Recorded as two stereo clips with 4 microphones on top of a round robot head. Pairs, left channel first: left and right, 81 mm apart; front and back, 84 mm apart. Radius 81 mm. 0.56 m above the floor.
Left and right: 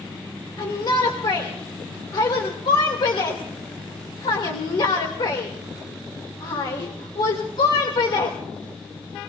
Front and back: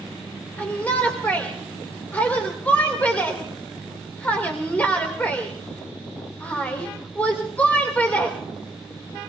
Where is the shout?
70° left, 2.5 m.